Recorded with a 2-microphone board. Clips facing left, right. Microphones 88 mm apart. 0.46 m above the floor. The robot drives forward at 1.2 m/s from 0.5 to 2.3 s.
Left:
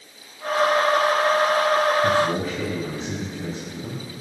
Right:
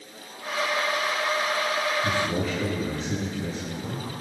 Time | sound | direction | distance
2.0 | a man speaking | 40° left (ahead or behind) | 3.5 m